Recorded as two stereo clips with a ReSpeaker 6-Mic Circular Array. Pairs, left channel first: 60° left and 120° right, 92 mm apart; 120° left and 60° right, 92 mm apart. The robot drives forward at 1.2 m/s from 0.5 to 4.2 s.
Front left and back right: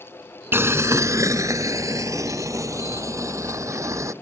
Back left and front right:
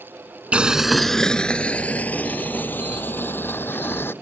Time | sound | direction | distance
0.5 | boiling | 115° right | ?